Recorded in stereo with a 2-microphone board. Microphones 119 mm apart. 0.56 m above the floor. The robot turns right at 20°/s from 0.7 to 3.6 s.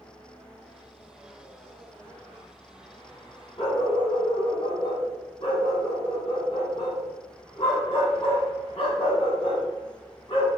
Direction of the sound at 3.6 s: 50° left (ahead or behind).